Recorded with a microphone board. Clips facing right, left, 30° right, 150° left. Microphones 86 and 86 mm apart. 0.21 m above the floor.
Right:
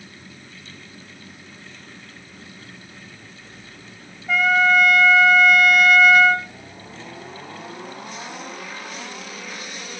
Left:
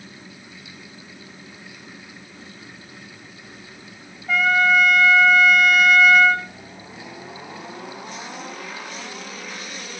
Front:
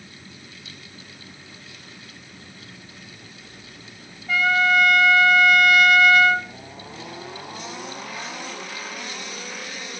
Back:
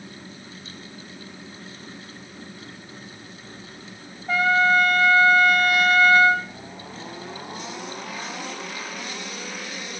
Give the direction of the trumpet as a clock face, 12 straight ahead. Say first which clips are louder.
Right 1 dB, back 1 dB; 6 o'clock.